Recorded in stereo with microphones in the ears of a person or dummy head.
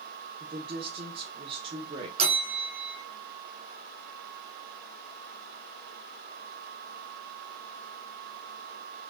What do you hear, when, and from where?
0.4 s a woman speaking: 35° right (ahead or behind), 0.8 m
2.2 s a bell: 40° right (ahead or behind), 0.8 m